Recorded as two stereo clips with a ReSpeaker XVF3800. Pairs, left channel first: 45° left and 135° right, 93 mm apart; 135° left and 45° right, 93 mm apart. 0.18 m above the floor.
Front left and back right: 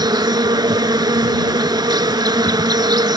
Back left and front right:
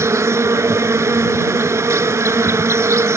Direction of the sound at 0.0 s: 100° right.